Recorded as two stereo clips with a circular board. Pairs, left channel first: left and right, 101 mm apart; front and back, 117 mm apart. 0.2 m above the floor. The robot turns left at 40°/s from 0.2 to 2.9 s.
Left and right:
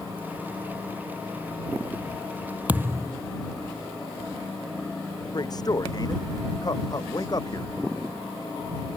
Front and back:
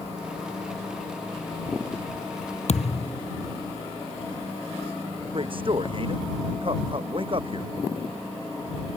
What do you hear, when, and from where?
2.7 s a thud: 15° right; by 3.2 s 25° right
5.3 s a man speaking: 140° left